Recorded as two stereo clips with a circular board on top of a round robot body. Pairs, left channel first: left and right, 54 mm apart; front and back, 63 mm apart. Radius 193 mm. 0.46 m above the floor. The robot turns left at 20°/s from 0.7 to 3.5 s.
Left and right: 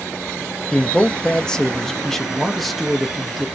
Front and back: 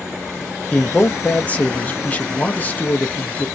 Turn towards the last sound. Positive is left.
turn(degrees=-10)